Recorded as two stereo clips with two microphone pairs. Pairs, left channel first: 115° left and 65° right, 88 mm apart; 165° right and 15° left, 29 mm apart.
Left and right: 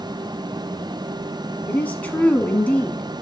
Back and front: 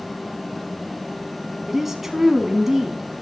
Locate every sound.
1.7 s a woman speaking: 70° left, 1.1 m